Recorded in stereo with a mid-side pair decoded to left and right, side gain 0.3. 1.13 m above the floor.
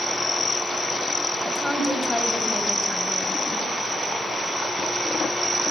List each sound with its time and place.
1.4 s a woman speaking: 25° left, 5.5 m